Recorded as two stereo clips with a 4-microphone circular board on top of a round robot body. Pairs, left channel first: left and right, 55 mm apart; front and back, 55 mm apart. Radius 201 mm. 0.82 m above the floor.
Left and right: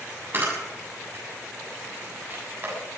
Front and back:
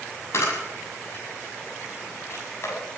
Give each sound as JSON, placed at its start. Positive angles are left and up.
{"t": 0.3, "sound": "a camera shutter", "azimuth_deg": -40, "distance_m": 7.5}